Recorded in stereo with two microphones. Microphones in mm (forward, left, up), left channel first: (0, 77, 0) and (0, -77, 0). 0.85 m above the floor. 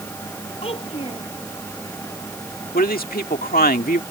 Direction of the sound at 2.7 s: 70° left (ahead or behind).